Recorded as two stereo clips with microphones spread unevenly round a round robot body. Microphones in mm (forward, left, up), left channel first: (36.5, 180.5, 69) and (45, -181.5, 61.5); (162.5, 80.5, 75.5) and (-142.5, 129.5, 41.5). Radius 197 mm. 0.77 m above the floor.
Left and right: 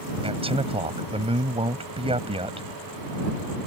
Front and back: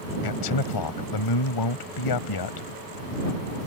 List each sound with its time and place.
0.2 s a man speaking: 15° right